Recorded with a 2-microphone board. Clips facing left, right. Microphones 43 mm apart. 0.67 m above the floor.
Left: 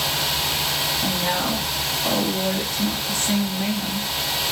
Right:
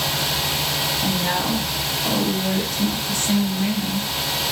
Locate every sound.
1.0 s a woman speaking: 20° left (ahead or behind), 0.9 m